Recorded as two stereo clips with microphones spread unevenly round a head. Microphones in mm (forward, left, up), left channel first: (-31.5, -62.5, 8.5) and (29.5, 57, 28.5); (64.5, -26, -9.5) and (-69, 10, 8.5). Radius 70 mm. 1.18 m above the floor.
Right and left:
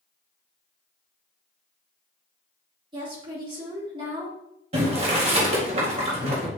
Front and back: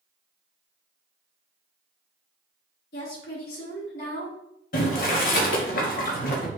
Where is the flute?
I don't hear a flute.